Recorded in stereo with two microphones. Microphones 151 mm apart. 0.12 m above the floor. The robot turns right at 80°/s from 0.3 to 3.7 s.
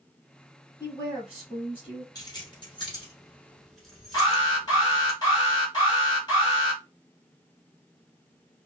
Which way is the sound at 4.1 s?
30° left (ahead or behind).